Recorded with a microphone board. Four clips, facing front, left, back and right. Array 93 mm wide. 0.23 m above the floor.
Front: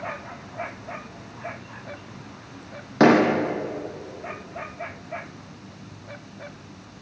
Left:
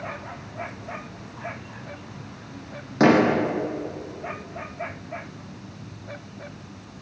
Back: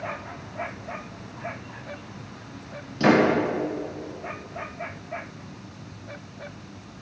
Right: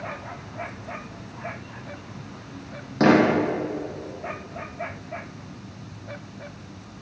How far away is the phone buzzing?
I don't hear a phone buzzing.